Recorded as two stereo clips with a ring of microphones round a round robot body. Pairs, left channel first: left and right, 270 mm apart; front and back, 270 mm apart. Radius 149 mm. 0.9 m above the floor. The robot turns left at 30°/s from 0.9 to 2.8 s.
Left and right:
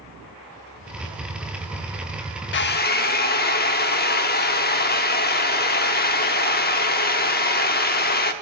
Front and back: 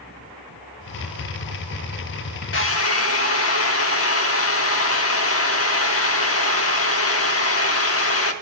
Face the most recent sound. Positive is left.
turn(degrees=35)